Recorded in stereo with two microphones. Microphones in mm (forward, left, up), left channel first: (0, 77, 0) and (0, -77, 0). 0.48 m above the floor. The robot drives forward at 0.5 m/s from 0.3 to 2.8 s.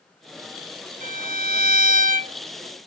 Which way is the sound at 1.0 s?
60° right (ahead or behind).